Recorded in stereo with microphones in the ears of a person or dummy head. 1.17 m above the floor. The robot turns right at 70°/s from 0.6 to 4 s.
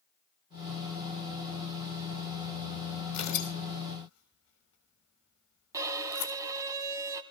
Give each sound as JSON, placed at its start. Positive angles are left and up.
{"t": 3.1, "sound": "tearing paper", "side_deg": 35, "distance_m": 6.5}
{"t": 5.7, "sound": "a violin", "side_deg": -10, "distance_m": 1.6}